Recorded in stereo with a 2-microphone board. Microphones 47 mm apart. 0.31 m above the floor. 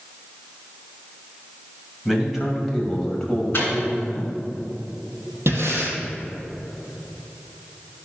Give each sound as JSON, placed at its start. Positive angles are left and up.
{"t": 2.0, "sound": "a man speaking", "side_deg": -5, "distance_m": 2.0}
{"t": 3.5, "sound": "a microwave", "side_deg": 45, "distance_m": 2.5}
{"t": 5.5, "sound": "breathing", "side_deg": -60, "distance_m": 2.0}